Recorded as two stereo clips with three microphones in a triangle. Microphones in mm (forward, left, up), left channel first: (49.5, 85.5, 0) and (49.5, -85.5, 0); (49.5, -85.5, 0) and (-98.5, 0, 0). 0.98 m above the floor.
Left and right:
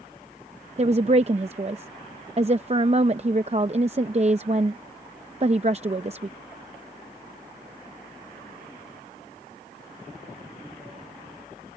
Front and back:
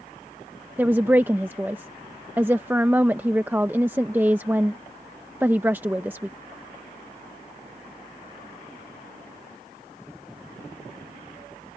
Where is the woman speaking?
135° right.